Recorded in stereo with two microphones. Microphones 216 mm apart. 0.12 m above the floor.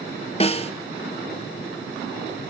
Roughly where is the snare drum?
Left.